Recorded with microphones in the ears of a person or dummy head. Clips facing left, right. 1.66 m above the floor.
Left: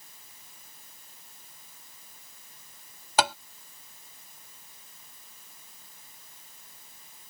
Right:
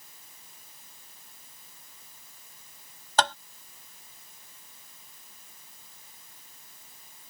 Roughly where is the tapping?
Centre.